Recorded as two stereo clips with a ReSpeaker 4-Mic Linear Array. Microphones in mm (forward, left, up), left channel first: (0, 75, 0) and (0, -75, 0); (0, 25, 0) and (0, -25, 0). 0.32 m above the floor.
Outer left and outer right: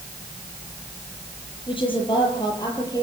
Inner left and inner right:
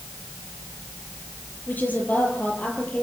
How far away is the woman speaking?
About 8 m.